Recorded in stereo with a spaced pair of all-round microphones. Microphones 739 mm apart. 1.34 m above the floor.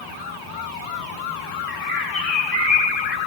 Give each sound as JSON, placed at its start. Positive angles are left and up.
{"t": 1.7, "sound": "a bird", "side_deg": 50, "distance_m": 2.5}